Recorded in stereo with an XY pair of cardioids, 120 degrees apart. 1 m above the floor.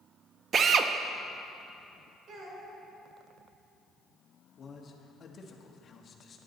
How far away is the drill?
About 0.6 m.